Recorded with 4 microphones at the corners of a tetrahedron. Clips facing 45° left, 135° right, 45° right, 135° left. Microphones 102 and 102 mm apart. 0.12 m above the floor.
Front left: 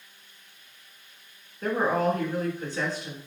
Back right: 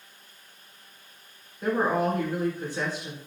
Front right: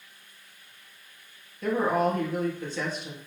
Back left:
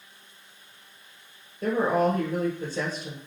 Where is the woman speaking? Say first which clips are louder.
Even, back left 1 dB; 155° left, 1.5 m.